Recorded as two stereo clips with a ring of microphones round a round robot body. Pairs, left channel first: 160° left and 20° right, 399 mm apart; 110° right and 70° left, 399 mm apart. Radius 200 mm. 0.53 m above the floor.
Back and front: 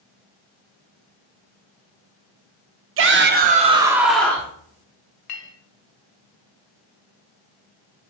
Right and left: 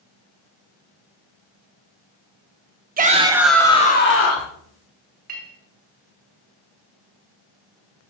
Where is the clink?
135° left, 1.0 m.